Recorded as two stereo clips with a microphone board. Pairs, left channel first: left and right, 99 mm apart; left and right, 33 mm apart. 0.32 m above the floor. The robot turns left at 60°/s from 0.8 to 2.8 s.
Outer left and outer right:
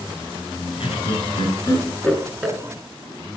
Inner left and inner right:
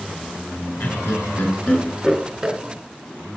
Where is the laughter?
75° left (ahead or behind), 4 m; by 2.6 s 15° right (ahead or behind), 4 m.